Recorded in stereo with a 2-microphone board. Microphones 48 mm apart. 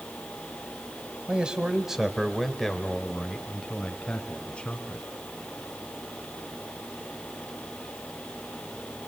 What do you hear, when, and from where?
1.3 s a man speaking: 20° right (ahead or behind), 1.3 m; by 5.1 s 25° left (ahead or behind), 2.5 m